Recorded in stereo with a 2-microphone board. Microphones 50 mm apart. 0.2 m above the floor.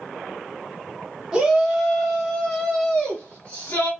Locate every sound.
1.3 s a shout: 20° right (ahead or behind), 1.5 m; by 3.9 s 35° left (ahead or behind), 1.9 m